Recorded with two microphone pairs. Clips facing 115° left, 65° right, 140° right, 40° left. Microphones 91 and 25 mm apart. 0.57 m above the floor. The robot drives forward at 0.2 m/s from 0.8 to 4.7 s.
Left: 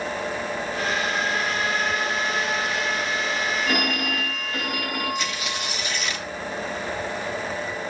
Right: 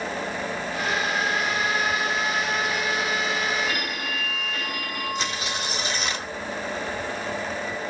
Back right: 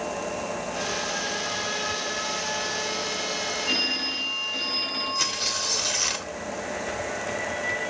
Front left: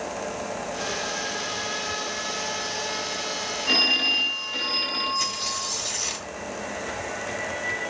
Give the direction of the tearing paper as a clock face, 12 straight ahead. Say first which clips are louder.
Even, back right 1 dB; 4 o'clock.